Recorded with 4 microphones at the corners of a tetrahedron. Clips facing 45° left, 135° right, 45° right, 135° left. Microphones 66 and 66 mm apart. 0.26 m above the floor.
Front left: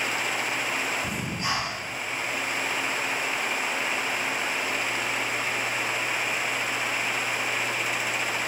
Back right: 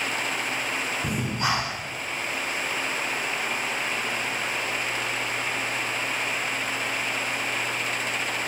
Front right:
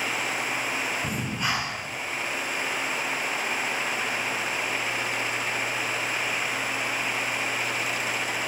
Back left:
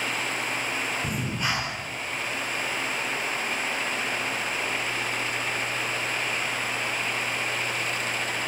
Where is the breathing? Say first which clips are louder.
Back right 3 dB, even; 135° right, 0.5 m.